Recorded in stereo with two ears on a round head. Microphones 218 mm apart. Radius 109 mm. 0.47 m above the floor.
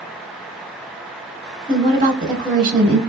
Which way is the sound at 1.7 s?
20° right (ahead or behind).